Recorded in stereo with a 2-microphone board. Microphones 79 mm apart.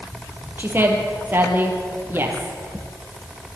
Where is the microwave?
No microwave in this recording.